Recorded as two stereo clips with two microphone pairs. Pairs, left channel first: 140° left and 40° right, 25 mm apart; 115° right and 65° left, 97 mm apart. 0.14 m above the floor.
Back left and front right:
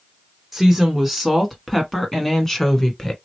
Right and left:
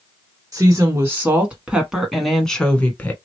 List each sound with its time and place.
0.5 s a woman speaking: 40° left, 1.3 m; by 3.1 s 170° right, 1.2 m